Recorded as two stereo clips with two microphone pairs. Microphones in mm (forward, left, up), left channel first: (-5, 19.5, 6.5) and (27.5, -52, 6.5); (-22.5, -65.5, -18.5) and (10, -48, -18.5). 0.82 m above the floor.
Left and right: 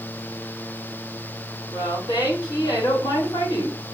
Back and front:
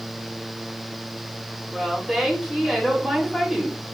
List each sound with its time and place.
1.7 s a woman speaking: 120° left, 3.5 m